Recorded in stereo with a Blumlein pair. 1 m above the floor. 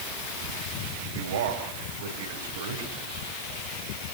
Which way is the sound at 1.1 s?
55° right.